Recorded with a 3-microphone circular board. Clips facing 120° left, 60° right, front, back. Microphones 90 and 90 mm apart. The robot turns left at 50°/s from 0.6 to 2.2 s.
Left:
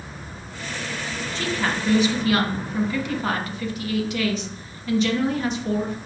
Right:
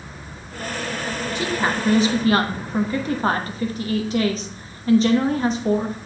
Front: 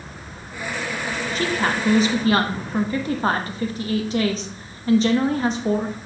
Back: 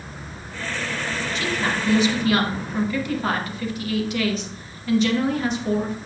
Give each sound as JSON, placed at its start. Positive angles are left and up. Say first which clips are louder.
{"t": 1.4, "sound": "a woman speaking", "louder": "right 2 dB, front 3 dB", "azimuth_deg": 10, "distance_m": 1.0}